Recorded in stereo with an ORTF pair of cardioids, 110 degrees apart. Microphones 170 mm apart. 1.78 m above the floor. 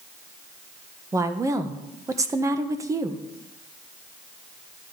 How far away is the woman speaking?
About 1.6 m.